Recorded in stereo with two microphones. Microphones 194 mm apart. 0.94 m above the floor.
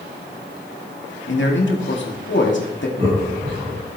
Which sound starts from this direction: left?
A man speaking, at 1.3 s.